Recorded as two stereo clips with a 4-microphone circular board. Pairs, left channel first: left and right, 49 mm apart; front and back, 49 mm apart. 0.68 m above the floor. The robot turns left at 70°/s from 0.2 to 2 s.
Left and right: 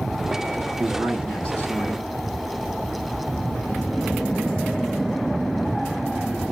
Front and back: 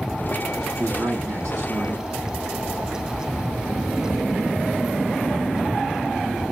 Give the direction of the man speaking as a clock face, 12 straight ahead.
5 o'clock.